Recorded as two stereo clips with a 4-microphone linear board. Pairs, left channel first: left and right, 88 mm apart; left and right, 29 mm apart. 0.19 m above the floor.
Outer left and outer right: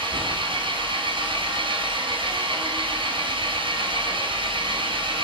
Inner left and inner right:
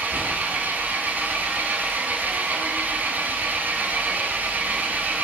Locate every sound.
0.0 s an engine running: 70° right (ahead or behind), 1.1 m